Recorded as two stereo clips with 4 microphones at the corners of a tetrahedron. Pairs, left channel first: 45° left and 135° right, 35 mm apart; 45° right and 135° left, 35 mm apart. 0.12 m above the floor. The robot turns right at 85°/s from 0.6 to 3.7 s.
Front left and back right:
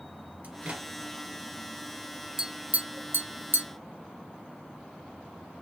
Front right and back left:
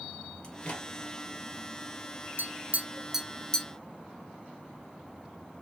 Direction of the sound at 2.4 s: 150° left.